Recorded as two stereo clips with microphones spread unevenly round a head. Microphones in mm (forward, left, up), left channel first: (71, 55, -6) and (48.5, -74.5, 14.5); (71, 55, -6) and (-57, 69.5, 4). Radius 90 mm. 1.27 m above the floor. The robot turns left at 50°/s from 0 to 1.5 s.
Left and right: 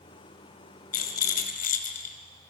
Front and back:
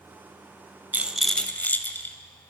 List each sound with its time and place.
0.9 s a rattle: 100° left, 2.5 m; by 2.1 s 70° left, 2.5 m